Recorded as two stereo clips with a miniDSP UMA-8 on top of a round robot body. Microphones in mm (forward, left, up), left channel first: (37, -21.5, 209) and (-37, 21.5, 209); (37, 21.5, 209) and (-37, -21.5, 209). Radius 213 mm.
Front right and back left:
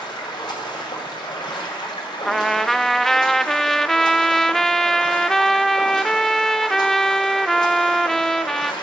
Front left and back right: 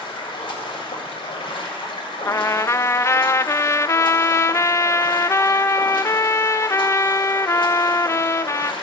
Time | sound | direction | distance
0.0 | running water | 5° left | 1.8 m
2.2 | a trumpet | 55° left | 0.5 m